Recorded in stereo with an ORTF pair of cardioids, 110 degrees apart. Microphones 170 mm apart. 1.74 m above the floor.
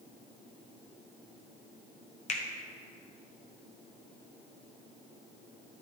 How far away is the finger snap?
About 1.0 m.